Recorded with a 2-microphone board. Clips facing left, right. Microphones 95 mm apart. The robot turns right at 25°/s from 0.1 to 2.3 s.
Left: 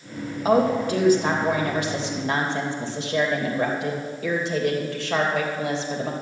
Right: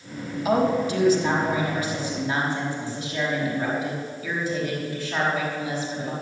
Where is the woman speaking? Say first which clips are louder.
Left 2 dB; 40° left, 3 m; by 6.1 s 85° left, 3 m.